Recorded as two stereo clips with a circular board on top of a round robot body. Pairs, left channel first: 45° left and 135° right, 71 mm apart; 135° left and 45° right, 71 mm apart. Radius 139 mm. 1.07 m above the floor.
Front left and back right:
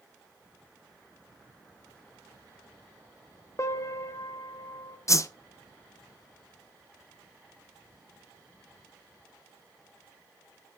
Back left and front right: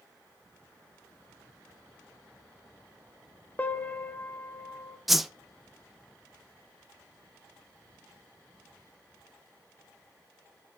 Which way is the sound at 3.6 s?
75° left.